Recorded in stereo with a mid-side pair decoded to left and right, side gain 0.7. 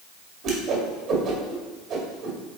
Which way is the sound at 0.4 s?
50° right.